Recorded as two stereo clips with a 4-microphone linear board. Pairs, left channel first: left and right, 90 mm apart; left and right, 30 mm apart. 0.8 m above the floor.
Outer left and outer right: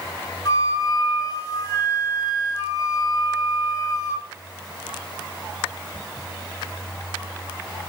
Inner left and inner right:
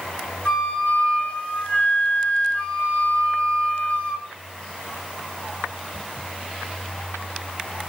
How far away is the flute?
About 4.5 m.